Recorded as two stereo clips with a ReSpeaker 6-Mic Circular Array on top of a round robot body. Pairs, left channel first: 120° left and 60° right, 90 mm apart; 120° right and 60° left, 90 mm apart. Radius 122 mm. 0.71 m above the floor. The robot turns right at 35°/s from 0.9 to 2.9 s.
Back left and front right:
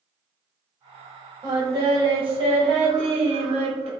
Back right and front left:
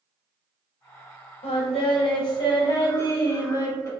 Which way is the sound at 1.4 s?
105° right.